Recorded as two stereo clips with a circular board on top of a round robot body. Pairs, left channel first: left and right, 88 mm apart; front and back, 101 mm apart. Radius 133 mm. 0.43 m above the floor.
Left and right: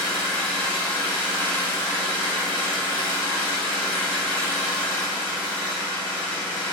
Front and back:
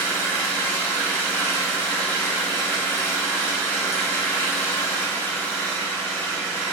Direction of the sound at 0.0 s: 75° right.